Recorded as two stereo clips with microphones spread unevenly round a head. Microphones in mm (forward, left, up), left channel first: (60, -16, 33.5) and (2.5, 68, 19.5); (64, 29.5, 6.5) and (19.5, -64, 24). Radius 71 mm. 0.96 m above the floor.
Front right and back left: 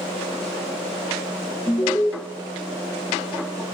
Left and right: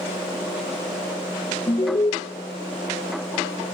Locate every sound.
1.7 s an alarm: 5° left, 2 m